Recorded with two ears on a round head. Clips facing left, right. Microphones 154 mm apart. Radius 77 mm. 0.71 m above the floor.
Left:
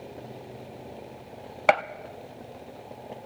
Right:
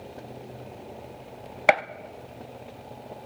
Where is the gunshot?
10° right (ahead or behind), 0.5 m.